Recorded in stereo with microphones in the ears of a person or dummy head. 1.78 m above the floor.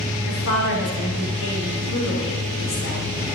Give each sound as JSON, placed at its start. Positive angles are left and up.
{"t": 0.2, "sound": "a woman speaking", "side_deg": 75, "distance_m": 5.0}